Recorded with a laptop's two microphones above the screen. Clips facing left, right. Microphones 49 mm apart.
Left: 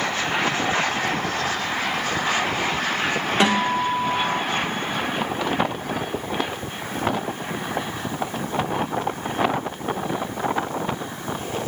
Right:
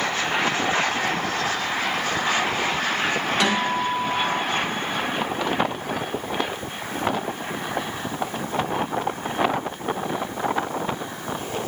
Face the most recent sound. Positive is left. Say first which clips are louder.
# left 4 dB
turn(degrees=30)  # may be behind; listen again after turning